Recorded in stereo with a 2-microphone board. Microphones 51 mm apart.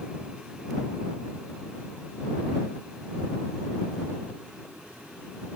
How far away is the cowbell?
No cowbell in this recording.